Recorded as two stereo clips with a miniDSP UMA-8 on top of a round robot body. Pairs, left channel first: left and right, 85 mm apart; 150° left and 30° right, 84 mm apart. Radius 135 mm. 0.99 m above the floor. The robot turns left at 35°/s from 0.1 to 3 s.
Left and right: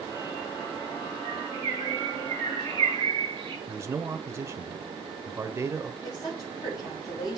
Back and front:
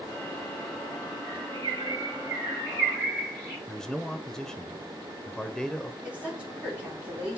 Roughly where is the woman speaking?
Ahead left.